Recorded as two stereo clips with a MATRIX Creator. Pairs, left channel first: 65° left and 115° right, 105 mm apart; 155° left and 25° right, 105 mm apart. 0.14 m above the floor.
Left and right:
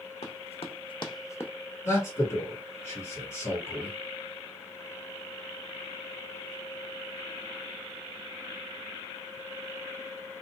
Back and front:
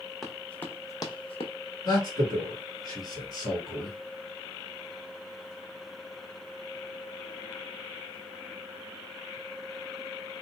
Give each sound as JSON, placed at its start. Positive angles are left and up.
{"t": 0.2, "sound": "running footsteps", "azimuth_deg": 65, "distance_m": 0.7}
{"t": 1.9, "sound": "a man speaking", "azimuth_deg": 125, "distance_m": 2.0}